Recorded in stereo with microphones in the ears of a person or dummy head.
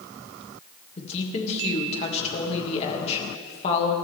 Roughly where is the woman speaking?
Left.